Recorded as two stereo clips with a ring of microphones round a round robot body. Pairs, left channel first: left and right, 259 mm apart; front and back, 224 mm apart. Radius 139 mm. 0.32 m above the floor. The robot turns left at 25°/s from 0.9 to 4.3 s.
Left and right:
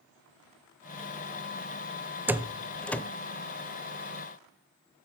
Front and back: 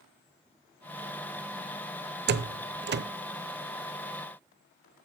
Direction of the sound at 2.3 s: 170° right.